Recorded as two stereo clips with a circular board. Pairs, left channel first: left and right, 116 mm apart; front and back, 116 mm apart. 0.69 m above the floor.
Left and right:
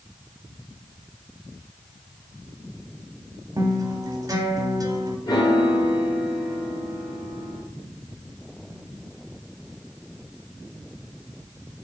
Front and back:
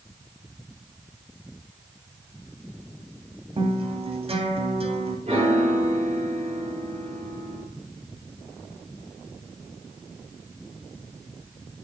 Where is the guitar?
150° right, 0.8 m.